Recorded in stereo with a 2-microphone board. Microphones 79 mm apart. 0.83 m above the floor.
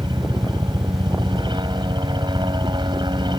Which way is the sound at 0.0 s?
75° right (ahead or behind).